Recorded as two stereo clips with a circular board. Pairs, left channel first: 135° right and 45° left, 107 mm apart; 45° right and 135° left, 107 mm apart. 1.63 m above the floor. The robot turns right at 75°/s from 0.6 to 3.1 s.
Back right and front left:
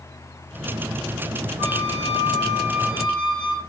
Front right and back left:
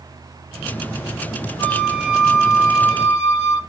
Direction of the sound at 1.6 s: 30° left.